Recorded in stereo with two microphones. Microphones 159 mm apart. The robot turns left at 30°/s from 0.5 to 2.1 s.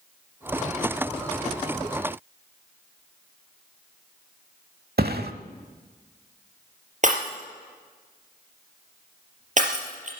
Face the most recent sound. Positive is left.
turn(degrees=-50)  # may be behind; listen again after turning